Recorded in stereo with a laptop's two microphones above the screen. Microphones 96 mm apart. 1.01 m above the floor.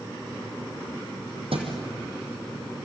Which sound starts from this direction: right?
A thud, at 1.5 s.